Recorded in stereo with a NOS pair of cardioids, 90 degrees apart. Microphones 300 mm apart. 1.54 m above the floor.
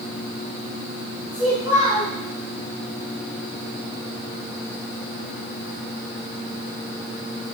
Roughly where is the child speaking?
Ahead.